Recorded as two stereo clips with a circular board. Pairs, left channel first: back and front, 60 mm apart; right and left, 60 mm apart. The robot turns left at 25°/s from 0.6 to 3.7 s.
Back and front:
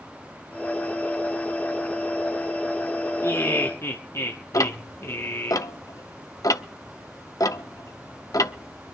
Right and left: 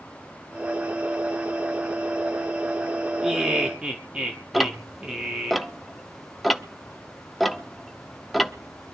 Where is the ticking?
Straight behind, 0.9 m.